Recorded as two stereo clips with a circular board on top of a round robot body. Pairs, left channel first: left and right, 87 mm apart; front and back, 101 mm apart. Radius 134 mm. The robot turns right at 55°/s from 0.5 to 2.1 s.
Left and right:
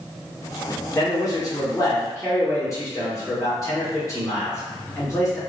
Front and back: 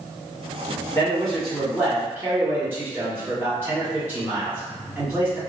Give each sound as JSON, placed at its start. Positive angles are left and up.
{"t": 0.9, "sound": "a man speaking", "azimuth_deg": 55, "distance_m": 1.8}